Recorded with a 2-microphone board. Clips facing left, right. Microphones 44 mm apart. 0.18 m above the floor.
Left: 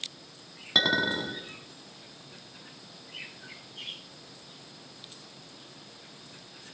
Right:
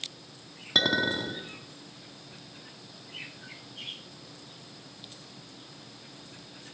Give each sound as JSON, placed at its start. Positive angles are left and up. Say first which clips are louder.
{"t": 0.8, "sound": "a clink", "louder": "even", "side_deg": 5, "distance_m": 1.2}